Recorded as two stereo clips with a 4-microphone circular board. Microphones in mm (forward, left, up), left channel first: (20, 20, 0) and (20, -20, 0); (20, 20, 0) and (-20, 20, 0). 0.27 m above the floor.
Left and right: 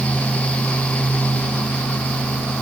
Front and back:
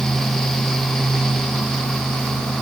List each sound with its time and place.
Only background noise.